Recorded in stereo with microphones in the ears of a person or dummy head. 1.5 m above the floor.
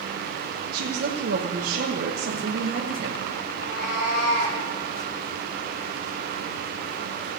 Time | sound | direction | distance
0.7 | a woman speaking | 60° right (ahead or behind) | 0.9 m
3.5 | a cat meowing | 60° left (ahead or behind) | 3 m